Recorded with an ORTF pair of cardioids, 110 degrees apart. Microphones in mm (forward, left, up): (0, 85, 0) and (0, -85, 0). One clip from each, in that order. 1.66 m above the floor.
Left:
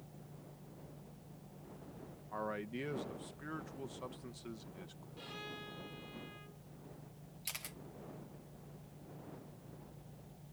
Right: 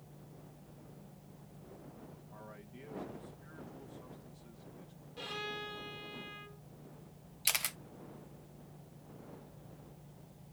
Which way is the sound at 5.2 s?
45° right.